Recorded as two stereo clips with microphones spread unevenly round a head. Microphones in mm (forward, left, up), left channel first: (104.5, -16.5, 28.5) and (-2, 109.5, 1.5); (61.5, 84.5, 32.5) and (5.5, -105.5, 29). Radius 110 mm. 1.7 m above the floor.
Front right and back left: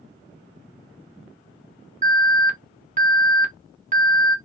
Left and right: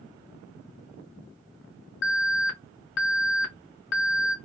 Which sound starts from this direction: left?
An alarm, at 2.0 s.